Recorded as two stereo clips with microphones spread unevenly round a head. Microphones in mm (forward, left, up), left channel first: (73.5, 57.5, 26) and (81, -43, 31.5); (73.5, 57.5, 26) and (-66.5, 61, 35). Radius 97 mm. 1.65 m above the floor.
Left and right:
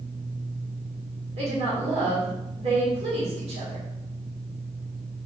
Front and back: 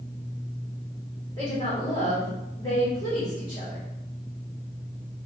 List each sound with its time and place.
1.4 s a woman speaking: 75° right, 2 m